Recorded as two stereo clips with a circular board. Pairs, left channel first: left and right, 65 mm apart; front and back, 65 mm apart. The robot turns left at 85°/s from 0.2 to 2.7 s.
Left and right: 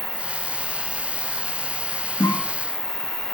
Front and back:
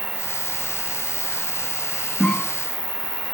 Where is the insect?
140° right, 1.9 m; by 3.3 s 10° left, 1.9 m.